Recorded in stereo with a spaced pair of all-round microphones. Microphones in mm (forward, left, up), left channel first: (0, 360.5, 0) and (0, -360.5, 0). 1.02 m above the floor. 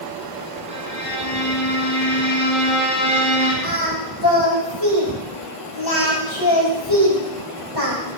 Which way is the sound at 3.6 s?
30° left (ahead or behind).